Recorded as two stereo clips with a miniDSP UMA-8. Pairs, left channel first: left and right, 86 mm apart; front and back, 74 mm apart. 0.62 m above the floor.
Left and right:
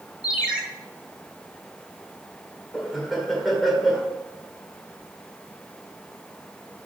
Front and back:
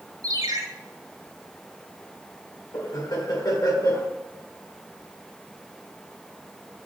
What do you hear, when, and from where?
0.2 s a ringtone: 165° right, 1.9 m
2.7 s laughter: straight ahead, 1.8 m